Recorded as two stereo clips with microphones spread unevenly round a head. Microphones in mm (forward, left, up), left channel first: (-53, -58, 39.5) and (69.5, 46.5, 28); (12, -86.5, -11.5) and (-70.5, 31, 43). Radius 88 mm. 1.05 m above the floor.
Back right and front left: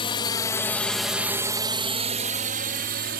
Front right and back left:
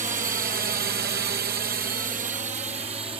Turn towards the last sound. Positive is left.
turn(degrees=55)